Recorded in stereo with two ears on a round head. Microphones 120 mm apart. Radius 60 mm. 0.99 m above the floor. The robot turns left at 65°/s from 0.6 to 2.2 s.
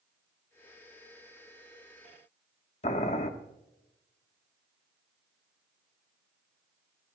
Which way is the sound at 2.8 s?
50° left (ahead or behind).